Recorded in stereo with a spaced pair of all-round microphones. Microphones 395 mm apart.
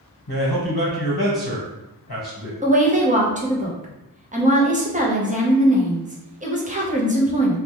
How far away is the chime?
No chime in this recording.